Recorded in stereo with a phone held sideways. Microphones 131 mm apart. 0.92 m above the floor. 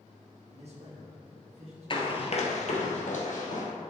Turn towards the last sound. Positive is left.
turn(degrees=70)  # may be behind; listen again after turning